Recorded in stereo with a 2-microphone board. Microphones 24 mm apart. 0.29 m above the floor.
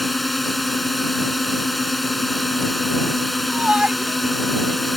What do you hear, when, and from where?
0.0 s a drone: 5° left (ahead or behind)
3.5 s a shout: 55° right (ahead or behind)